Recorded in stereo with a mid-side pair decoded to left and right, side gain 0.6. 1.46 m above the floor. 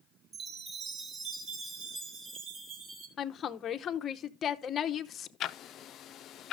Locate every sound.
0.3 s a chime: 45° right, 4 m
3.2 s a woman speaking: 40° left, 0.9 m
5.4 s ticking: 50° left, 0.6 m